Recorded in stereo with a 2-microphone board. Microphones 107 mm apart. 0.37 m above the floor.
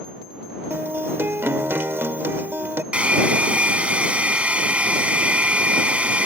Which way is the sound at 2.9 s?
10° right (ahead or behind).